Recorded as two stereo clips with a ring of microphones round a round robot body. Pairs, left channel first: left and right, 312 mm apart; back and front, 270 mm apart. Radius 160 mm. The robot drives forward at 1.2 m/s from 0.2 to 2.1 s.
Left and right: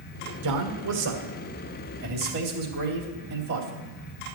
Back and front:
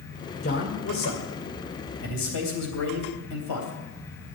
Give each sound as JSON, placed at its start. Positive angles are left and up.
{"t": 0.4, "sound": "a man speaking", "azimuth_deg": -115, "distance_m": 1.9}